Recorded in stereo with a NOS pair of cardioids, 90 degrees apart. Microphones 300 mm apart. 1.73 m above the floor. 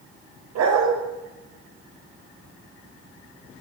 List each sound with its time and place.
0.6 s a dog barking: 65° right, 3.5 m